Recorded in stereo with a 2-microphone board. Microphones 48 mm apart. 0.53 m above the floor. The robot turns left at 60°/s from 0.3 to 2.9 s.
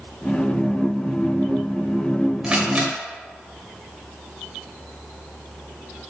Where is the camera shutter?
10° right (ahead or behind), 1.9 m; by 2.9 s 35° right (ahead or behind), 1.9 m.